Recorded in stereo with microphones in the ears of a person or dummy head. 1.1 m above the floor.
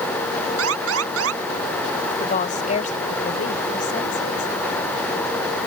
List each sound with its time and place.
0.6 s an alarm: 85° right
2.2 s a woman speaking: 40° left (ahead or behind)